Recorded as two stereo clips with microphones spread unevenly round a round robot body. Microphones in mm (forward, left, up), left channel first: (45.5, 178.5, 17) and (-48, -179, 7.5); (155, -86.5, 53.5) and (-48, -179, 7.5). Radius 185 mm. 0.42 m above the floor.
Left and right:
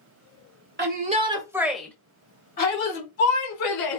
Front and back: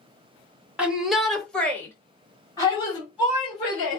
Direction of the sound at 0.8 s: 105° right.